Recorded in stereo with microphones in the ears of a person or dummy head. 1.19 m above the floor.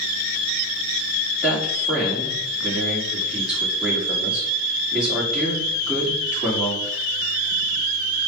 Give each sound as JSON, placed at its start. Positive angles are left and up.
{"t": 1.4, "sound": "a man speaking", "side_deg": 0, "distance_m": 3.5}